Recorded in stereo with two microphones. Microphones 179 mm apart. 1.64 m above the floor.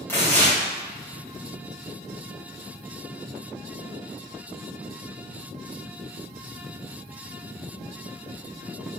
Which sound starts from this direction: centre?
Tearing paper, at 0.1 s.